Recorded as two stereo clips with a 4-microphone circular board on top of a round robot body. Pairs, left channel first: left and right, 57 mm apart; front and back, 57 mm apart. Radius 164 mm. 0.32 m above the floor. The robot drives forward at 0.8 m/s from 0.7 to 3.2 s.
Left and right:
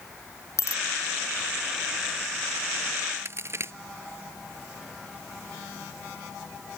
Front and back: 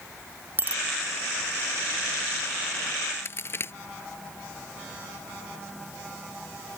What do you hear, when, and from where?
0.6 s a bicycle bell: 125° left
3.2 s a crack: 45° right